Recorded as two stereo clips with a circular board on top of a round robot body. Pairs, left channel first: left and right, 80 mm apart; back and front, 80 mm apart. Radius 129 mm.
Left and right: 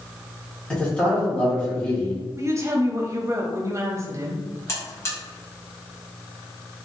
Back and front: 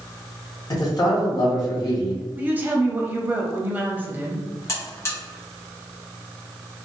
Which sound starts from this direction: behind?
A man speaking, at 0.7 s.